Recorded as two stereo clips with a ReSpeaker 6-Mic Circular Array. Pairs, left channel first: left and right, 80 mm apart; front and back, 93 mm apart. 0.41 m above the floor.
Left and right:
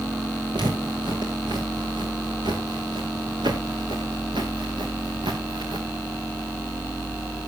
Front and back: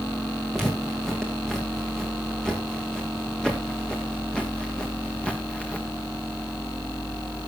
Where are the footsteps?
85° right, 6.5 m; by 5.9 s 75° right, 3 m.